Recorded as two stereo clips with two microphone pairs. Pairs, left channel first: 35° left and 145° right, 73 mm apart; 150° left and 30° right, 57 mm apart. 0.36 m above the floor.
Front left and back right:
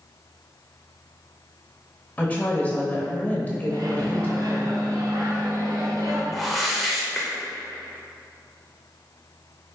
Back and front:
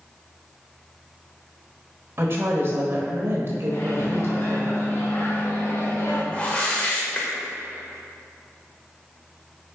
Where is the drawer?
No drawer in this recording.